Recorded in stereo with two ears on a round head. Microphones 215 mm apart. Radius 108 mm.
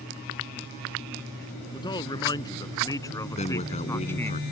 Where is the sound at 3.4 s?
30° left (ahead or behind).